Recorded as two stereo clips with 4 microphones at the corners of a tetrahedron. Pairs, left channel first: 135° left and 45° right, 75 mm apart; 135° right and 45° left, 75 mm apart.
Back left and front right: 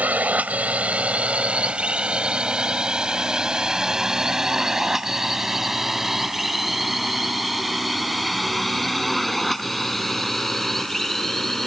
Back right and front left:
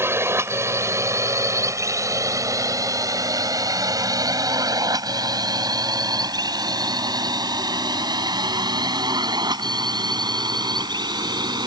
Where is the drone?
15° left; by 11.7 s 50° left.